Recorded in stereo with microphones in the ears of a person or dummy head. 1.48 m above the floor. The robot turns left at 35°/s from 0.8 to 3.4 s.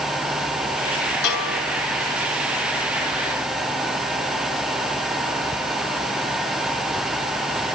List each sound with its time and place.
1.2 s a bell: 65° left (ahead or behind), 8.5 m; by 1.6 s 55° left (ahead or behind), 8.5 m